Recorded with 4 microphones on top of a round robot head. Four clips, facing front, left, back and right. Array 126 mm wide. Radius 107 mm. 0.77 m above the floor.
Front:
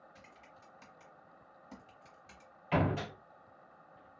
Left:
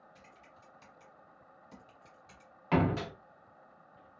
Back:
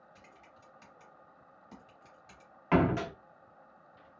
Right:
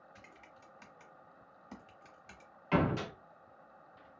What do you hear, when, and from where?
0.1 s typing on a keyboard: 95° right, 0.6 m
2.7 s a door slam: 155° left, 0.9 m